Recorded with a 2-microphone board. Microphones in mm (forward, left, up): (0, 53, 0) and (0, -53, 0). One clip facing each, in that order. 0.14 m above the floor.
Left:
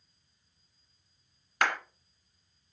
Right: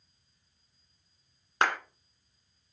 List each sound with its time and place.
1.6 s a clap: 25° right (ahead or behind), 1.5 m